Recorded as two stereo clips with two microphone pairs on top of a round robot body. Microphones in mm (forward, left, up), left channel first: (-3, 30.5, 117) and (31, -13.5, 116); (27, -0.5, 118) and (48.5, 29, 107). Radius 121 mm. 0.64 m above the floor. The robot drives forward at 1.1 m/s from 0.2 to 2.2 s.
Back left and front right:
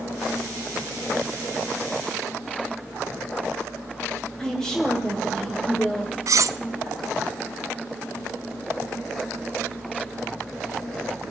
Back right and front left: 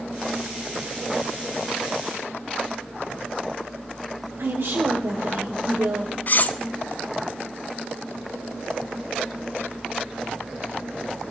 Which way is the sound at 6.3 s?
75° right.